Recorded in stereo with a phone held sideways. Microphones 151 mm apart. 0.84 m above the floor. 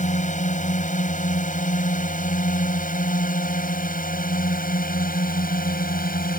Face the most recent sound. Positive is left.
turn(degrees=70)  # may be behind; listen again after turning